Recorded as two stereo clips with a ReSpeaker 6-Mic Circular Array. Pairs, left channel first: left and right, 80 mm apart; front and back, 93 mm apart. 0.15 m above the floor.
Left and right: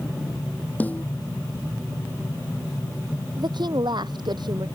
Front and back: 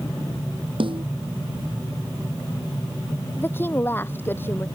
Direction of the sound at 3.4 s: 65° right.